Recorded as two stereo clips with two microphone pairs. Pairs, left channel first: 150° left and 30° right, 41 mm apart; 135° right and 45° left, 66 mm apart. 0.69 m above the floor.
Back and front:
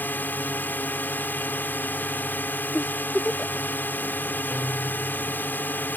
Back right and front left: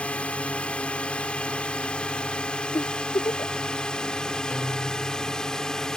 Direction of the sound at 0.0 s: 160° left.